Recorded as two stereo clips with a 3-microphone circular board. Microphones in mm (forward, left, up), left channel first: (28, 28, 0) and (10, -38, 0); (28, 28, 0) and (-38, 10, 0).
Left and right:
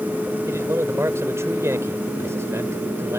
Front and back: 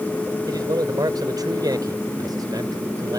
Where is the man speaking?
150° right.